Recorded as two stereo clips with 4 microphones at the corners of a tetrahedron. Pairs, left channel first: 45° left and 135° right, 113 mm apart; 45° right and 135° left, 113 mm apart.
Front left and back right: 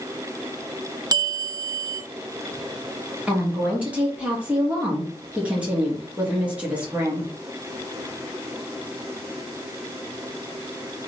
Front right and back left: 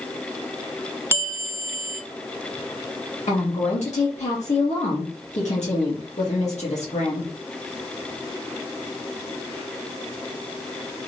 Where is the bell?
165° right, 0.7 m.